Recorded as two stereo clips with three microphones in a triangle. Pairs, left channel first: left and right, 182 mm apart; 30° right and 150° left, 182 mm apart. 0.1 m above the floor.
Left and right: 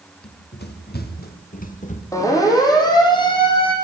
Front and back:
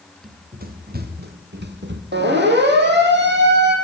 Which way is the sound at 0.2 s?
110° left.